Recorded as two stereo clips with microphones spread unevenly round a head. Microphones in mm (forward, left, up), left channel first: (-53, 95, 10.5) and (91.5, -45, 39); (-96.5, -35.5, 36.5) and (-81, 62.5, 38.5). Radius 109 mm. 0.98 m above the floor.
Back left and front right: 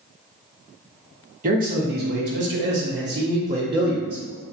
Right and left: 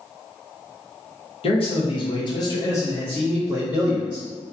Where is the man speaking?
100° right, 1.0 m; by 4.2 s 15° left, 1.1 m.